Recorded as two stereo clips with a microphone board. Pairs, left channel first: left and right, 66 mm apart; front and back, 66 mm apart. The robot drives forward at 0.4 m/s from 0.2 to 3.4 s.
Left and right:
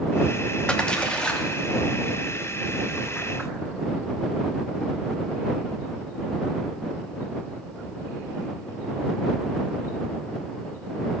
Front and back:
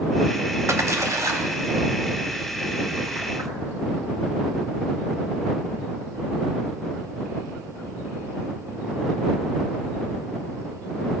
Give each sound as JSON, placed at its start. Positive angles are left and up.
{"t": 0.7, "sound": "a splash", "azimuth_deg": 160, "distance_m": 1.0}